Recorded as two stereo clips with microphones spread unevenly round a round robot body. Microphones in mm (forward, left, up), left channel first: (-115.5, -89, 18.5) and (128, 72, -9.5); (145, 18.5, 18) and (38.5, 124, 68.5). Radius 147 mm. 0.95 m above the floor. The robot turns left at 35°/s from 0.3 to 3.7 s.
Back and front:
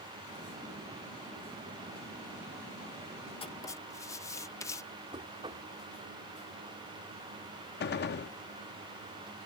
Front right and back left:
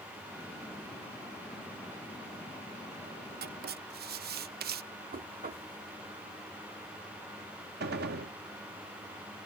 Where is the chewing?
I don't hear chewing.